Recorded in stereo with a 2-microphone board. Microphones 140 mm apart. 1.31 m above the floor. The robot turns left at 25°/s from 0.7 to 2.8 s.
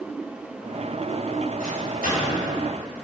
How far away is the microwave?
About 3.5 m.